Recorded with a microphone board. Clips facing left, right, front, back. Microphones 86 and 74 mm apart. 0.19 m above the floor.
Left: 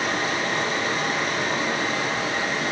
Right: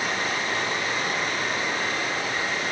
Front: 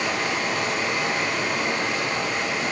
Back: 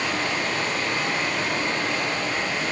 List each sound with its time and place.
0.0 s running water: 75° left, 3.5 m